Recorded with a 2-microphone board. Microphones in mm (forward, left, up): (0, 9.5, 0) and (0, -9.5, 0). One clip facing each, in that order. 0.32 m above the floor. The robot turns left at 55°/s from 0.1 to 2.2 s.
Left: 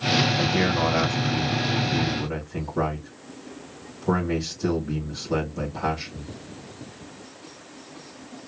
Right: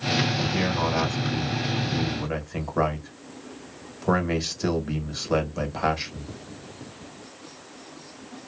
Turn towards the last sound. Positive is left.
turn(degrees=-50)